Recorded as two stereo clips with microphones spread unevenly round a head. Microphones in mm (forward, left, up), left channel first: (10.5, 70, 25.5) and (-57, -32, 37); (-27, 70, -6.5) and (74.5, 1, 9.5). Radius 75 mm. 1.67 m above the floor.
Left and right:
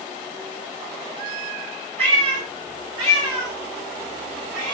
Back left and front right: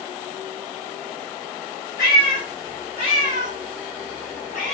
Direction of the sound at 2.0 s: 145° right.